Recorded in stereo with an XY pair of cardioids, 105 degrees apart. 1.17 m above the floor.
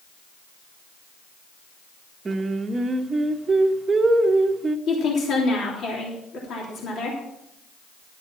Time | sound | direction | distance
2.2 | singing | 30° right | 1.0 m
4.9 | a woman speaking | 65° left | 3 m